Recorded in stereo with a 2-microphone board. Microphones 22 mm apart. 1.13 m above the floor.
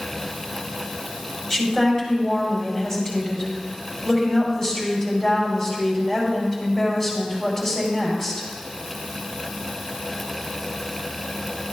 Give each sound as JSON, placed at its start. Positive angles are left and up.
{"t": 1.5, "sound": "a woman speaking", "side_deg": 10, "distance_m": 5.0}